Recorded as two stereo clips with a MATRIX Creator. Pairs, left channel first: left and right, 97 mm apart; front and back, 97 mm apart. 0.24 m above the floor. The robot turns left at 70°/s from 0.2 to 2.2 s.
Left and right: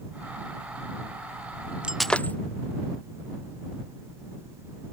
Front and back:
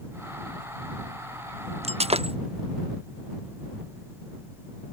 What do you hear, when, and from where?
1.8 s breaking glass: 170° right; by 2.4 s 165° left